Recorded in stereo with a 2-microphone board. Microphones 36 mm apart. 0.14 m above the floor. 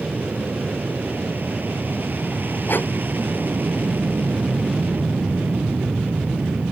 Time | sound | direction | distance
0.0 | an aircraft | 60° right (ahead or behind) | ?
2.7 | breathing | 60° left (ahead or behind) | ?